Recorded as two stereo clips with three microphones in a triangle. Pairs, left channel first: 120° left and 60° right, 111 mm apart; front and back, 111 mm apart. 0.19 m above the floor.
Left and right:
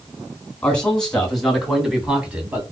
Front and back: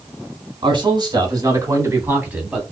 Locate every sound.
0.6 s a man speaking: 165° right, 2 m; by 2.6 s 100° right, 1.6 m